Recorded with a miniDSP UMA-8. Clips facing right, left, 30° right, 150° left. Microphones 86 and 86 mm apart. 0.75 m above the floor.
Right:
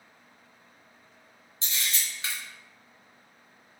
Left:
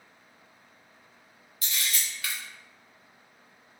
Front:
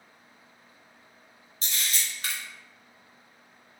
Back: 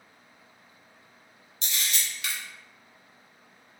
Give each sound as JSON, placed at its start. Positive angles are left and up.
{"t": 1.6, "sound": "a camera shutter", "azimuth_deg": -40, "distance_m": 0.8}